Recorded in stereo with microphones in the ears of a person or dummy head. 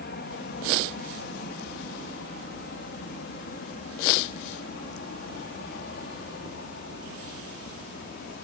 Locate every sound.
0.0 s an aircraft: 50° left (ahead or behind)